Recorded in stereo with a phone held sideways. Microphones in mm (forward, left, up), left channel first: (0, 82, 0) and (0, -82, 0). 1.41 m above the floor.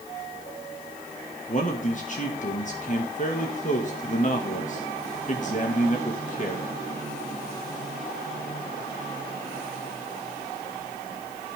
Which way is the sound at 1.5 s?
50° left (ahead or behind).